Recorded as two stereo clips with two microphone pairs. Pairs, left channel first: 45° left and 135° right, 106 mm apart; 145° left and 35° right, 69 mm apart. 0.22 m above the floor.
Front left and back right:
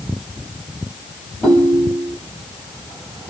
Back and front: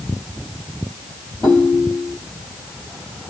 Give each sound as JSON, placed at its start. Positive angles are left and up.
{"t": 1.4, "sound": "a ringtone", "azimuth_deg": 135, "distance_m": 2.5}